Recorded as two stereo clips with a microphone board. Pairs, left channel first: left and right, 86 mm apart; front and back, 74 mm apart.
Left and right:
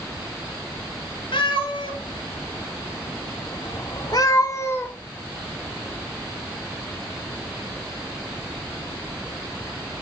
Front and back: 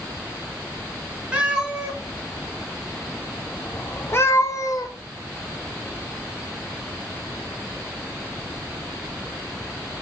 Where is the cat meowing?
105° left, 1.9 m; by 4.9 s 25° left, 1.1 m.